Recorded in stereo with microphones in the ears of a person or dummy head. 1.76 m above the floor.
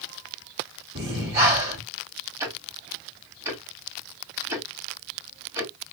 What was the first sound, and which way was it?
Breathing, 30° right (ahead or behind).